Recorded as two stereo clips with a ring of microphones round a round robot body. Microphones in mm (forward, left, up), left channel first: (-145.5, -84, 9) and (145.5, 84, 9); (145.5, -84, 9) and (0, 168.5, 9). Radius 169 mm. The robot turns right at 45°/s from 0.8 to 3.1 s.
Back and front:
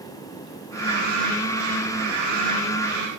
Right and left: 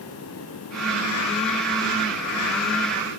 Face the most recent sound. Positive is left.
No sound to turn to.